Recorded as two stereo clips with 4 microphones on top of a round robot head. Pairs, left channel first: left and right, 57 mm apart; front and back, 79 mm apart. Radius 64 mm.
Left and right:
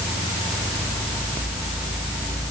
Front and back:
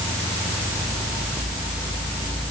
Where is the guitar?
I don't hear a guitar.